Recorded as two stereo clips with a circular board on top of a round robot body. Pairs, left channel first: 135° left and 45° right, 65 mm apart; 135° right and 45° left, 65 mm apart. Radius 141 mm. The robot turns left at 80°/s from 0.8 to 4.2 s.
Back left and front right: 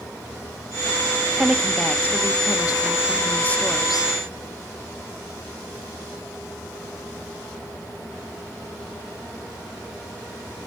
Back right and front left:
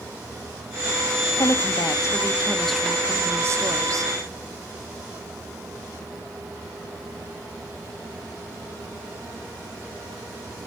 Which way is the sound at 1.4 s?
115° right.